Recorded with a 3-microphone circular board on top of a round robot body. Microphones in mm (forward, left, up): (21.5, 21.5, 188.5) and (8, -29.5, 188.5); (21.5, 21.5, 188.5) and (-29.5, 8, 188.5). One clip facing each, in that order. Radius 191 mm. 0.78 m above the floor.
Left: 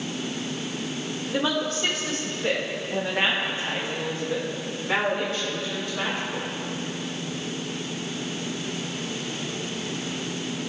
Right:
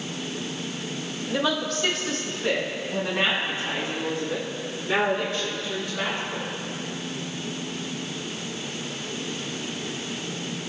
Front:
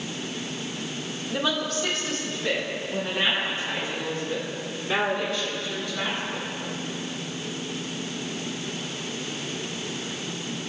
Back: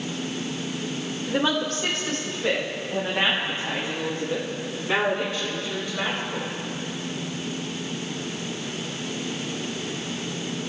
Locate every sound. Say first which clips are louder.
1.3 s a woman speaking: even, back 3 dB; 145° left, 2.5 m; by 6.5 s 125° left, 10 m